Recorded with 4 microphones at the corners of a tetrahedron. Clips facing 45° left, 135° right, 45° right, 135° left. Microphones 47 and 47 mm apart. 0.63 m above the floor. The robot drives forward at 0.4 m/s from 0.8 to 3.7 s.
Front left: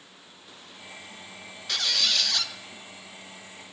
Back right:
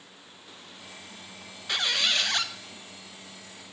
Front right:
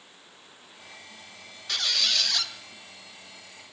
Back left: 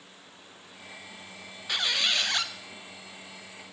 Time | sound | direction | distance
1.7 | a squeak | 175° right | 0.6 m